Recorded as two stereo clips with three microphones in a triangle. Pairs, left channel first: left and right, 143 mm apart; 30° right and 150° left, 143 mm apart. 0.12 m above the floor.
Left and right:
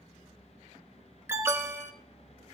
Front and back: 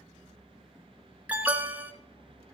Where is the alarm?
140° right, 1.1 m.